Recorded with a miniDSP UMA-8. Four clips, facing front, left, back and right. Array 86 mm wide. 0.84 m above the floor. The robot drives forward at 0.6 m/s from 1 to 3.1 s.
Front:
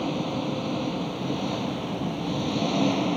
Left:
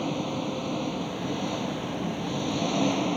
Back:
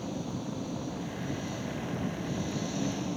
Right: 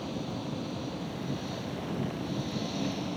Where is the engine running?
40° left.